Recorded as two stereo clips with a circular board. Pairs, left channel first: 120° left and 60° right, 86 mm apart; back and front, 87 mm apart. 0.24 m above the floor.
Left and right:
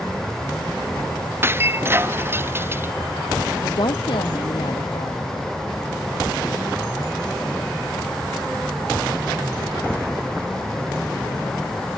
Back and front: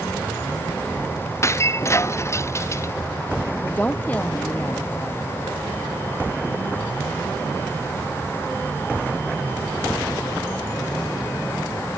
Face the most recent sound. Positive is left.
turn(degrees=110)